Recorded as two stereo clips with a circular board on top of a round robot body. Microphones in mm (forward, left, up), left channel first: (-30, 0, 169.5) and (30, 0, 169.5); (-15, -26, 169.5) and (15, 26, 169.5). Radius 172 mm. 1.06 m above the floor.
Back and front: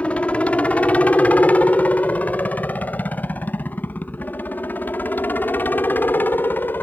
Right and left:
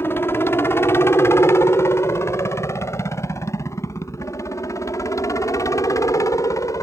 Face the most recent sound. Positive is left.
turn(degrees=-125)